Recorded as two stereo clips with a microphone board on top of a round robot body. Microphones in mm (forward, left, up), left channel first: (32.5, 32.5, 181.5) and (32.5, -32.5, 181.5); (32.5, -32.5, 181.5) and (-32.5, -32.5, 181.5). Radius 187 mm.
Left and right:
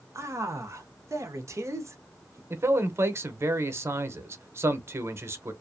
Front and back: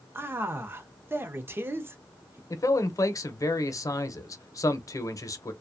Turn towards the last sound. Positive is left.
turn(degrees=-40)